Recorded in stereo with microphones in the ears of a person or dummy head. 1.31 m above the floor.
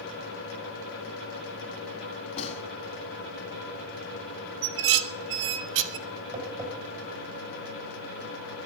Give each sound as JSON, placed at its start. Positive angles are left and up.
{"t": 2.4, "sound": "a gunshot", "side_deg": 35, "distance_m": 2.5}
{"t": 4.6, "sound": "dishes clattering", "side_deg": -70, "distance_m": 1.2}
{"t": 6.3, "sound": "tapping", "side_deg": -35, "distance_m": 8.0}